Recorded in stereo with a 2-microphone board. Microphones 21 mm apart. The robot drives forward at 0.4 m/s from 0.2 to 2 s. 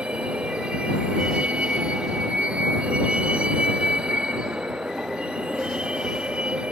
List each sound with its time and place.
0.0 s a vehicle: 75° right (ahead or behind); by 6.7 s 70° right (ahead or behind)